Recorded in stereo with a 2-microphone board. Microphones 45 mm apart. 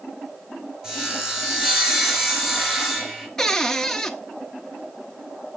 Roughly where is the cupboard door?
Centre.